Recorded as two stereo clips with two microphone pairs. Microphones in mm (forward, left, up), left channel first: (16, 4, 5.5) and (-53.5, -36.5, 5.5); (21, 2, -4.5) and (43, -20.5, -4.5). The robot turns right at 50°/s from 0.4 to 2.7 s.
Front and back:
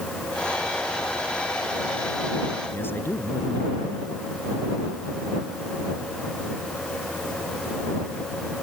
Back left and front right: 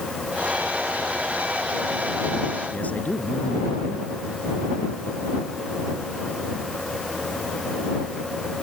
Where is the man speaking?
95° left.